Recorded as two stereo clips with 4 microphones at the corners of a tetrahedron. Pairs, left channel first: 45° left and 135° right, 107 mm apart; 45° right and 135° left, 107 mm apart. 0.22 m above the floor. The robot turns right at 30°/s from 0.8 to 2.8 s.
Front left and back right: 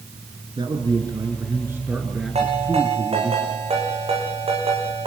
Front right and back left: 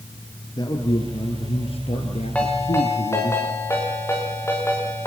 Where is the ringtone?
125° right, 7.5 m; by 5.1 s 110° right, 7.5 m.